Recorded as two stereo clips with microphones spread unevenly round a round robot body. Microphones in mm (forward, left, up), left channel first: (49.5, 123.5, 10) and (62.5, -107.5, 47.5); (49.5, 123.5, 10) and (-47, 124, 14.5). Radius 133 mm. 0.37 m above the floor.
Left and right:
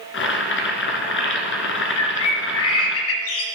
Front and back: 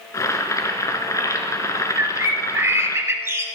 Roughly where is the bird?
Behind left.